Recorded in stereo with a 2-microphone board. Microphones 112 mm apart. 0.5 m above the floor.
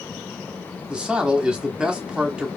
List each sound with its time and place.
0.9 s a man speaking: 10° right (ahead or behind), 1.1 m